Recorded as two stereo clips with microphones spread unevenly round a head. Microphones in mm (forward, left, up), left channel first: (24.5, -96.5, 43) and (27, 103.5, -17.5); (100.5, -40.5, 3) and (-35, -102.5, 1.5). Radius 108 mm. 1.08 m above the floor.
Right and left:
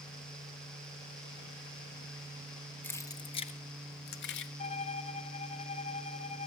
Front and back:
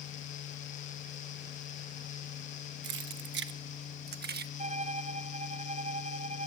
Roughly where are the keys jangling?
Behind.